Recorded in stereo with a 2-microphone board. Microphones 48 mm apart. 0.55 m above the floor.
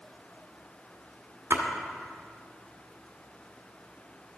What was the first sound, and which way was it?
A splash, 75° right (ahead or behind).